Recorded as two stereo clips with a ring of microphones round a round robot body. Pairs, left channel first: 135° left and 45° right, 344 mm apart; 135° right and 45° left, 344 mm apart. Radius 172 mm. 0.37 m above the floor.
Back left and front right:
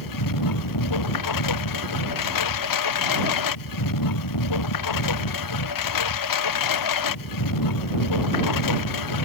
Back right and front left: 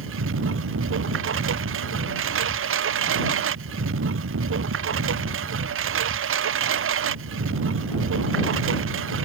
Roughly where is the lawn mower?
Left.